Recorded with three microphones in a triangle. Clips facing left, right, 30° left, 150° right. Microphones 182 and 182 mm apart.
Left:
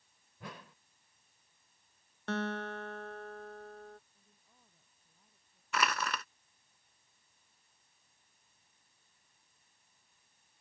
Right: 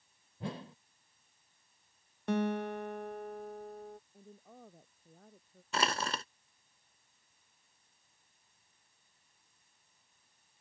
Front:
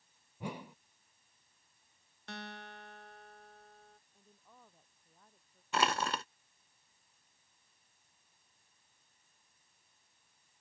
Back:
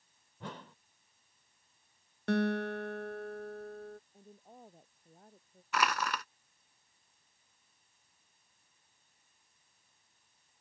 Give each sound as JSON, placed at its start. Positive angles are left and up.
{"t": 0.4, "sound": "a whoosh", "azimuth_deg": -45}
{"t": 2.3, "sound": "a guitar", "azimuth_deg": -165}
{"t": 4.1, "sound": "a woman speaking", "azimuth_deg": -105}
{"t": 5.7, "sound": "crushing", "azimuth_deg": -30}